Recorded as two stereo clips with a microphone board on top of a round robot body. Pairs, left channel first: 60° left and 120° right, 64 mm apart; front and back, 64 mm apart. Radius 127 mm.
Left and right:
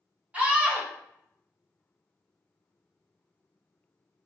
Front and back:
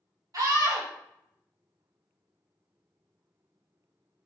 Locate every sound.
0.3 s a scream: 175° left, 1.9 m